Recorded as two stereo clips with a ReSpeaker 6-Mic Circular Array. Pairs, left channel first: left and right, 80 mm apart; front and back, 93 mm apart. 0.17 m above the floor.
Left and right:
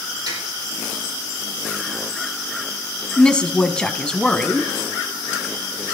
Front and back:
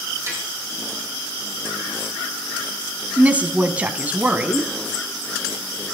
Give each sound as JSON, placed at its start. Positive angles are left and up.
{"t": 0.3, "sound": "tapping", "azimuth_deg": -125, "distance_m": 6.0}
{"t": 3.2, "sound": "a woman speaking", "azimuth_deg": 145, "distance_m": 1.1}